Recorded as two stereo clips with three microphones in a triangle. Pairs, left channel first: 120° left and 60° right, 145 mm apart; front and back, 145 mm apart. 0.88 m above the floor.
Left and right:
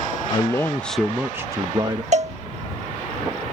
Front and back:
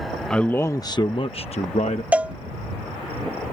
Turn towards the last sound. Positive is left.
turn(degrees=-100)